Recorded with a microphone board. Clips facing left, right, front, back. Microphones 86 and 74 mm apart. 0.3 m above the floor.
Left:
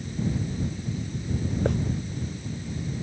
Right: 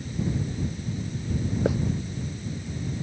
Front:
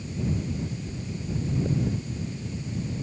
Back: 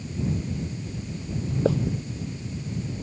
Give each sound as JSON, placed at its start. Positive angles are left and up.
{"t": 1.6, "sound": "a hiss", "azimuth_deg": -175}